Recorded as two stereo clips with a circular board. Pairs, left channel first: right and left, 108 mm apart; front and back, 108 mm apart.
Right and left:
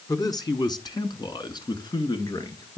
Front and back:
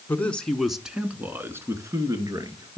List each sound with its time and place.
0.1 s a man speaking: 65° right, 1.6 m; by 2.8 s 135° right, 2.5 m